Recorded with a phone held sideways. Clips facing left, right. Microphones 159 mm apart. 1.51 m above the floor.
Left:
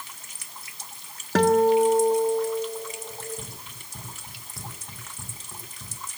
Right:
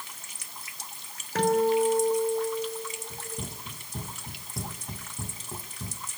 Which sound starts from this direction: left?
A guitar, at 1.4 s.